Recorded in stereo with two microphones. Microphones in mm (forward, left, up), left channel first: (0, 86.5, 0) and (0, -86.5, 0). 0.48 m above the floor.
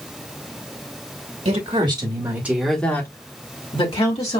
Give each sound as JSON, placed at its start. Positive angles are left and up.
{"t": 1.4, "sound": "a woman speaking", "side_deg": -40, "distance_m": 1.7}